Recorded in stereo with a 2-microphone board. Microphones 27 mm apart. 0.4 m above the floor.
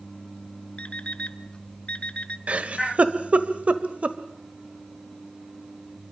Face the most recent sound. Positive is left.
turn(degrees=-60)  # may be behind; listen again after turning